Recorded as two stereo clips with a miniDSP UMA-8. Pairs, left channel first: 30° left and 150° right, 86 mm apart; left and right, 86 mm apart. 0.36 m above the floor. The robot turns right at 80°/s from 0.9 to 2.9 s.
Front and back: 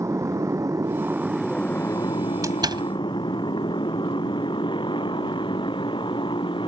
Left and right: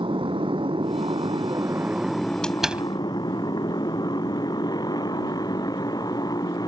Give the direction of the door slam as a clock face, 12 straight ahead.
6 o'clock.